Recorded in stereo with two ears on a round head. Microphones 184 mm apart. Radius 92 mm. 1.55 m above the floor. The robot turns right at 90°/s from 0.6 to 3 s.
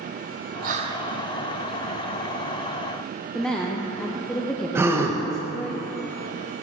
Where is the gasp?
10° right (ahead or behind), 0.8 m.